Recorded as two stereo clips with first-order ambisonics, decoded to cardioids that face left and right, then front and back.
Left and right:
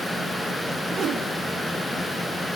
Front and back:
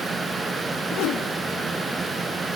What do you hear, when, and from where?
0.9 s a whoosh: 30° right, 1.1 m